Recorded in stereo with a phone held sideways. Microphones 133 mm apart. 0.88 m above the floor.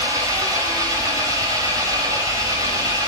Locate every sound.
0.0 s an engine running: 25° right (ahead or behind), 2.5 m